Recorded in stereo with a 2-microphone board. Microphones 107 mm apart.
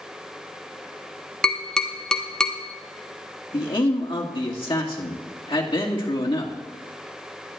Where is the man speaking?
50° left (ahead or behind), 1.7 m.